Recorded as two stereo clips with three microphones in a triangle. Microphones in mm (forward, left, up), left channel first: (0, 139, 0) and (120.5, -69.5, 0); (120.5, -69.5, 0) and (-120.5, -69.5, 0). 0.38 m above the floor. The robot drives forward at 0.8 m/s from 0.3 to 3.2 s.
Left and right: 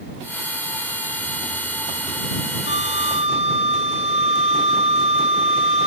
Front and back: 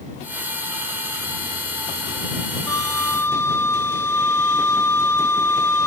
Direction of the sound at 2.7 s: 75° left.